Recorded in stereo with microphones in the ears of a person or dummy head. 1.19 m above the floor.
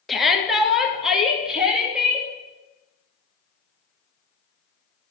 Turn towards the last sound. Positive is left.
turn(degrees=-5)  # may be behind; listen again after turning